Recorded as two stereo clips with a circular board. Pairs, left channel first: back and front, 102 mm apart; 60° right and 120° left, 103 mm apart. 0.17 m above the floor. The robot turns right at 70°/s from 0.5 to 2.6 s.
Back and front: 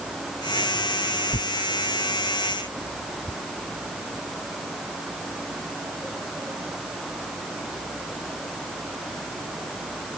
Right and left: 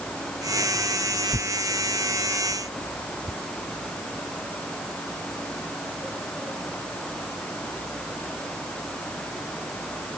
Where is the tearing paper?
170° left; by 3.4 s 100° right.